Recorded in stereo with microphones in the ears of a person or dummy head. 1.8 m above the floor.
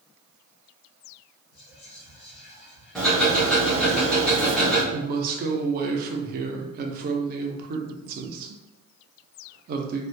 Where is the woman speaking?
50° right (ahead or behind), 0.6 m.